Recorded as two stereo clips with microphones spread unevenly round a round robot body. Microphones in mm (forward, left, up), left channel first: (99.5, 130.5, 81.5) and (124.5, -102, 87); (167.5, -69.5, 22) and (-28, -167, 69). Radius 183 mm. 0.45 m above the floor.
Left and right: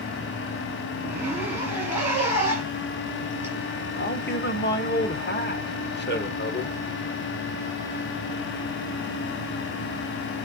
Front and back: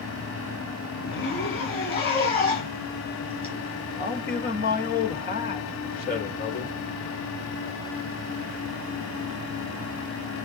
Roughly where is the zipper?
Ahead.